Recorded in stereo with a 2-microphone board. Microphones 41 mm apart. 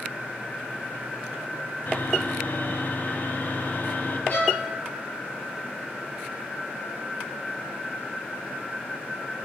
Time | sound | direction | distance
1.9 | sawing | 45° left (ahead or behind) | 1.5 m
4.3 | a violin | 40° left (ahead or behind) | 6 m